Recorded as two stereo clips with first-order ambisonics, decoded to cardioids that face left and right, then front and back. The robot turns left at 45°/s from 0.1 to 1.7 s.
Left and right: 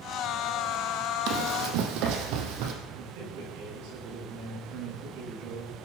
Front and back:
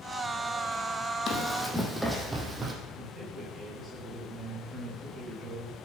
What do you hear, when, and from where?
1.3 s running footsteps: 55° right, 2.5 m; by 2.7 s 110° right, 2.5 m
3.0 s a man speaking: 95° right, 9.5 m